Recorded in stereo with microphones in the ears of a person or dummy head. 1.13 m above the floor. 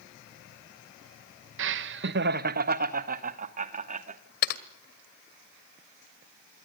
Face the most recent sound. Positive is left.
turn(degrees=60)  # may be behind; listen again after turning